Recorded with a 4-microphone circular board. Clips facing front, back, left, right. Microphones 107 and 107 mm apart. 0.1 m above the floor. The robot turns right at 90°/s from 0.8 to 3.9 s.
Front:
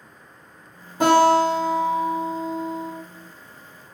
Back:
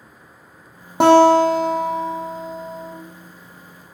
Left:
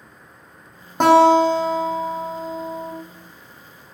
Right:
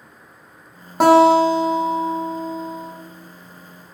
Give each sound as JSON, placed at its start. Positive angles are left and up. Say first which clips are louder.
{"t": 1.0, "sound": "a guitar", "louder": "back 5 dB, right 1 dB", "azimuth_deg": 180, "distance_m": 1.1}